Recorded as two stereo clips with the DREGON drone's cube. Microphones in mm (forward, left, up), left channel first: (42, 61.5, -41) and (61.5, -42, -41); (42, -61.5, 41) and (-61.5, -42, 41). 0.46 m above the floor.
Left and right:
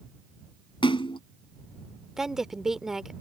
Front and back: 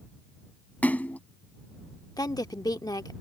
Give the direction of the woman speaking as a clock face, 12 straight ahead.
12 o'clock.